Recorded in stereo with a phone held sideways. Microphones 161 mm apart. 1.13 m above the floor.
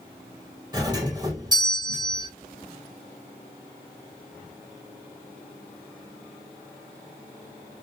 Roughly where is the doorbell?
Right.